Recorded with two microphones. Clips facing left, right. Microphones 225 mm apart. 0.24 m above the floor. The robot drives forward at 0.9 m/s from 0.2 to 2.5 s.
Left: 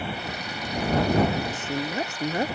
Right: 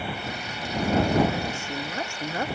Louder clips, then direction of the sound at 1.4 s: Left 3 dB; 20° left (ahead or behind).